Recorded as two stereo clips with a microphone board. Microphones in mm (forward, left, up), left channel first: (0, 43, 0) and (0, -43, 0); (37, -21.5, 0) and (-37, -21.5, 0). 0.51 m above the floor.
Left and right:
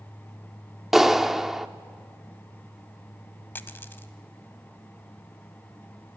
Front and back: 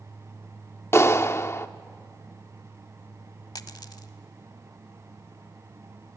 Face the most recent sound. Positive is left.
turn(degrees=25)